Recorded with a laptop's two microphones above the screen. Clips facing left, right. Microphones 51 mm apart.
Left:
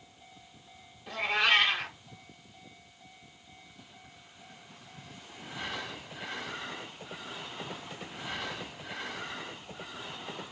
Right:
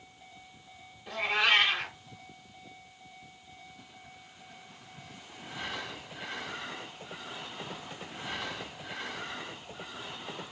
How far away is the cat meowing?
About 1.4 m.